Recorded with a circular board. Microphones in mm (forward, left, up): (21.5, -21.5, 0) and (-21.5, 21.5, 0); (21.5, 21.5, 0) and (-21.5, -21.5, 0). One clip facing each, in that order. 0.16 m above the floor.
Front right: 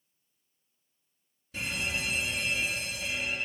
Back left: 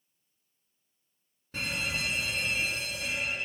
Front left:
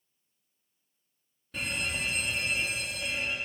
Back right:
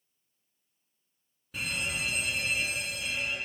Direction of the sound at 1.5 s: 140° left.